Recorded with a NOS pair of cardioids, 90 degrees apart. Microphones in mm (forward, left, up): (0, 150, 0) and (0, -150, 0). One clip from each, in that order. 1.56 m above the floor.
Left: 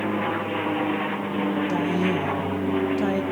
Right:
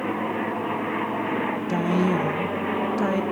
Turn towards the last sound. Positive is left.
turn(degrees=-15)